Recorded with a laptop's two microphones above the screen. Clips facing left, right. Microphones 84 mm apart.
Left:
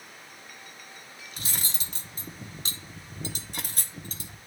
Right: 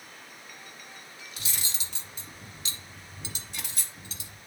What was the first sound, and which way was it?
Cutlery clinking, 45° left (ahead or behind).